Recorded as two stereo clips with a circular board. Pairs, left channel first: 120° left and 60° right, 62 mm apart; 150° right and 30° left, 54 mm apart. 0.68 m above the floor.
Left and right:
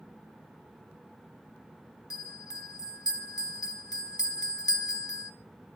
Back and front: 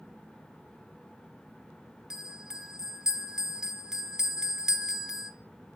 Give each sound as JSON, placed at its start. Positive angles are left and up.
{"t": 2.1, "sound": "a bell", "azimuth_deg": 110, "distance_m": 0.8}